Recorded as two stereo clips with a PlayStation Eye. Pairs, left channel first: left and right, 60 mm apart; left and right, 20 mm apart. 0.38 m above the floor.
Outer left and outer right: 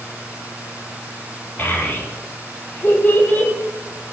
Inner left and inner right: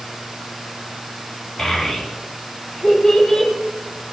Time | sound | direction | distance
1.6 | a child speaking | 35° left (ahead or behind) | 9.5 m